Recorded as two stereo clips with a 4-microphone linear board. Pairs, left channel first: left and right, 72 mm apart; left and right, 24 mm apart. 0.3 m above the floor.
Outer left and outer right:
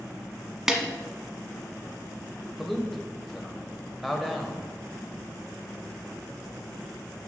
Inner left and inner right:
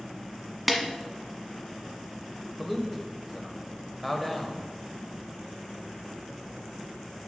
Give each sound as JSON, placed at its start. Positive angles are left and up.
{"t": 0.7, "sound": "a snare drum", "side_deg": -10, "distance_m": 1.3}
{"t": 2.6, "sound": "a man speaking", "side_deg": 0, "distance_m": 0.9}